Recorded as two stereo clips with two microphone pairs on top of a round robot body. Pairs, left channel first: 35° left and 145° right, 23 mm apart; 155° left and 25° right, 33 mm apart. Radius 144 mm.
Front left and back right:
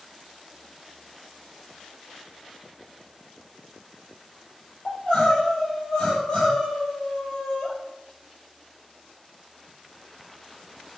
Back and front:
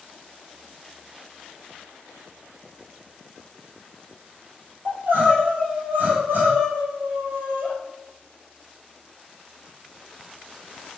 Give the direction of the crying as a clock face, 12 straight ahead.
1 o'clock.